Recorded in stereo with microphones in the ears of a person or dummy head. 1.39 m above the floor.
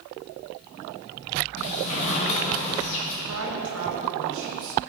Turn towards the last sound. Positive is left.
turn(degrees=-70)  # may be behind; listen again after turning